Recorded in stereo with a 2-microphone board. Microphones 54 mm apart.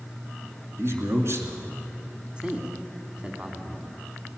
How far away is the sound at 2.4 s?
About 1.7 m.